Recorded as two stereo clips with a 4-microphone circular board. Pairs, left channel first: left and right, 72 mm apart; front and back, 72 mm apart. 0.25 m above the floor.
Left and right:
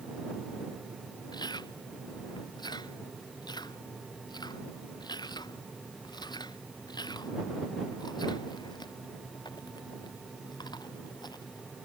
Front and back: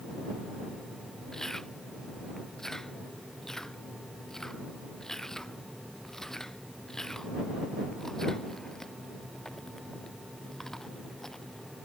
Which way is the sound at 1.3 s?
85° left.